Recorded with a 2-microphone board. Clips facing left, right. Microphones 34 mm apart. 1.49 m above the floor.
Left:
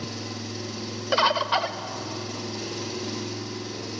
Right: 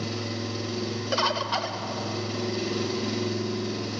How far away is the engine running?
About 4.5 m.